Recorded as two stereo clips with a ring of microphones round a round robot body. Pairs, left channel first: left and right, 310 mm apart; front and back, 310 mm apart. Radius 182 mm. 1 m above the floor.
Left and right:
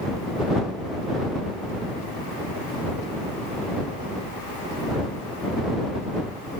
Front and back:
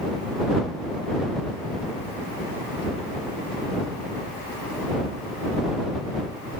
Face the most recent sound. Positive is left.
No sound to turn to.